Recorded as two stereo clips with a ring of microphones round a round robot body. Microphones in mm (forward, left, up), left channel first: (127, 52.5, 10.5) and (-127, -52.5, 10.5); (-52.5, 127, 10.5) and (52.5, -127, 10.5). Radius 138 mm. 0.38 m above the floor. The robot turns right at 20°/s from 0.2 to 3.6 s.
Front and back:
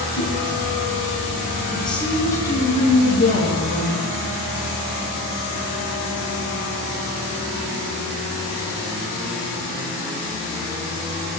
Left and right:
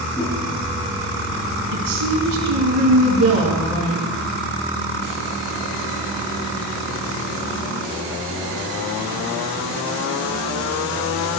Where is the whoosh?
40° left, 9 m; by 0.4 s 45° left, 9 m.